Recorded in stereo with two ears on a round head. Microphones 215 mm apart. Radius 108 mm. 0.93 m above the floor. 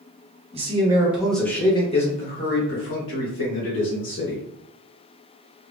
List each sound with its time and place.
0.5 s a man speaking: 25° right (ahead or behind), 1.0 m; by 4.4 s 70° left (ahead or behind), 2 m